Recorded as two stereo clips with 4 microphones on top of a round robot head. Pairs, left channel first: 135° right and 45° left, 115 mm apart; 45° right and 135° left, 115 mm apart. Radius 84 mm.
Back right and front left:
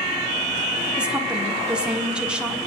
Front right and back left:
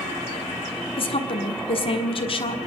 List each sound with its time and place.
1.0 s a woman speaking: 35° right, 1.5 m